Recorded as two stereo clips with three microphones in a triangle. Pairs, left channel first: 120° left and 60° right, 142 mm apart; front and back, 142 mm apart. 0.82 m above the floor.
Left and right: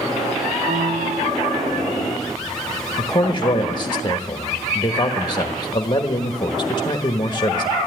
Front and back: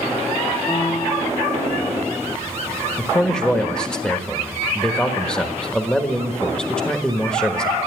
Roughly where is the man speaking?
Left.